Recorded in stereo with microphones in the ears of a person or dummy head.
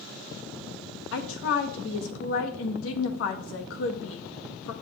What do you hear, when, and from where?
1.1 s a woman speaking: 80° left, 1.1 m